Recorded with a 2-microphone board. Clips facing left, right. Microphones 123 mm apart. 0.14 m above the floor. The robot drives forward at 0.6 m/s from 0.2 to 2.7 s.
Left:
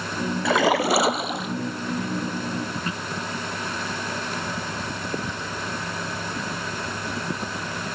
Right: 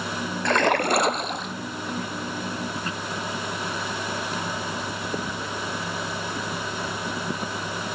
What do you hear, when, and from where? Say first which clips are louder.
0.5 s a splash: left 1 dB; 5° left (ahead or behind)